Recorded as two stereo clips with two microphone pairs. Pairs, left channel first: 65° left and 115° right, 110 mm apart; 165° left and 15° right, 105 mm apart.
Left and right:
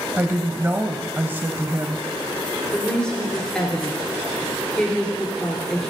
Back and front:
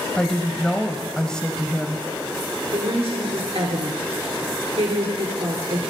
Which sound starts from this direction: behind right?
A woman speaking, at 0.2 s.